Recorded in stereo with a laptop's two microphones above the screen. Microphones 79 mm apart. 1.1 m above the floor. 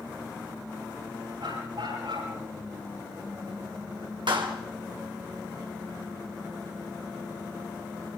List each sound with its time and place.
1.4 s a dog barking: 85° right, 9 m
4.3 s a clap: 80° right, 3 m